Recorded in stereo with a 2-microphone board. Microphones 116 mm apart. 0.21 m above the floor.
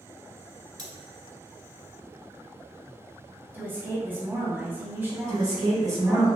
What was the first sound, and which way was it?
Cutlery clinking, 40° right (ahead or behind).